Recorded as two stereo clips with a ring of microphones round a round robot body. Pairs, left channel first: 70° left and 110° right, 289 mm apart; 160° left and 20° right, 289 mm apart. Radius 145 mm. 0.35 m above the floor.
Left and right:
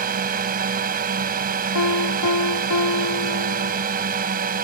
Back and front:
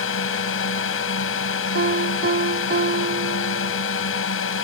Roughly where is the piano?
Ahead left.